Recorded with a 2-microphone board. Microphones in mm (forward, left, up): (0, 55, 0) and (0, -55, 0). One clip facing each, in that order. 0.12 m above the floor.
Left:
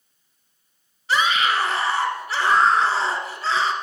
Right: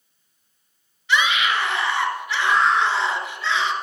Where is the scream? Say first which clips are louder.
Even; 40° left (ahead or behind), 1.8 m.